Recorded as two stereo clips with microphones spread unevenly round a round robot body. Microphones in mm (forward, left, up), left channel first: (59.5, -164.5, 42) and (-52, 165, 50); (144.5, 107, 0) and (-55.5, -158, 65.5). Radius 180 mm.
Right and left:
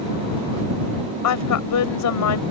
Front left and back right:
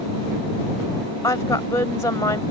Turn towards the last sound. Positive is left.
turn(degrees=-30)